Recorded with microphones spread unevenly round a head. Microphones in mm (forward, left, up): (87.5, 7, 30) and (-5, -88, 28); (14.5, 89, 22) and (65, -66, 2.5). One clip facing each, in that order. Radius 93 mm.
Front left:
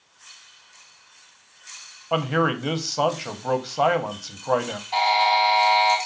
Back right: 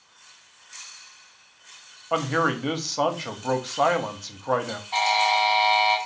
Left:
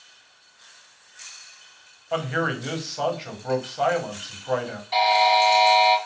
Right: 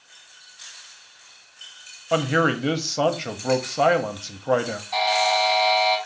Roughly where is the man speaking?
Ahead right.